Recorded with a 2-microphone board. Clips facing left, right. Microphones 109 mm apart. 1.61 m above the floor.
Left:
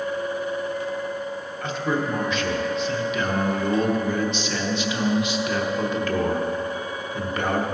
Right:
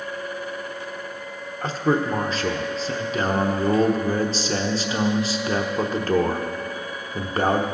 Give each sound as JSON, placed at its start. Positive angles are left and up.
{"t": 1.6, "sound": "a man speaking", "side_deg": -35, "distance_m": 1.0}